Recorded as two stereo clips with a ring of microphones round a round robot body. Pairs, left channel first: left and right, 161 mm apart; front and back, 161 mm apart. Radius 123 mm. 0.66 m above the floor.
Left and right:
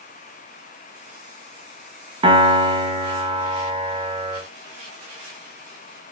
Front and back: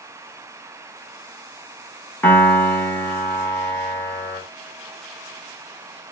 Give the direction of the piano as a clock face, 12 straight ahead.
2 o'clock.